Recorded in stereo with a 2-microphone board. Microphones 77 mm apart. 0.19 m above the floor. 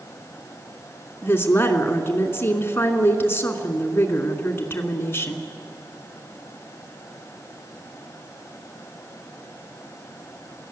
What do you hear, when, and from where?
1.2 s a woman speaking: 30° left (ahead or behind), 2.5 m